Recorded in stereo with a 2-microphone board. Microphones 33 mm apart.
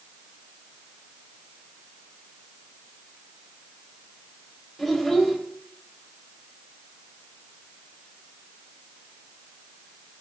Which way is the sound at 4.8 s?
Centre (ahead or behind).